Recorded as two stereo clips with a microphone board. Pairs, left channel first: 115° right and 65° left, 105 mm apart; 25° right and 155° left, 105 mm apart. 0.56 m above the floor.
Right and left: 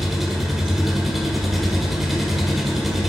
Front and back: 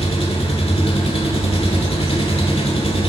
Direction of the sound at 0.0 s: 20° right.